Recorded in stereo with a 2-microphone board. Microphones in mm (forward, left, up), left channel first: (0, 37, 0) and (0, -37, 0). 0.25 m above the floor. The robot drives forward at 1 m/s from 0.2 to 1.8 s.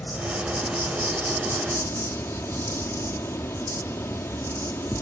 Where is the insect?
15° left (ahead or behind), 3.5 m; by 5.0 s 30° left (ahead or behind), 2 m.